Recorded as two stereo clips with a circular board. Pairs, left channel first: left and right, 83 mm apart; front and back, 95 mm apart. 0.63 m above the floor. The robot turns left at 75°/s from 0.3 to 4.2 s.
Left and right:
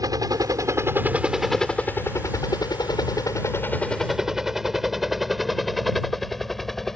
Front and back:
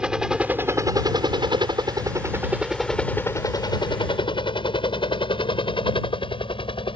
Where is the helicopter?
100° right; by 7.0 s 5° left.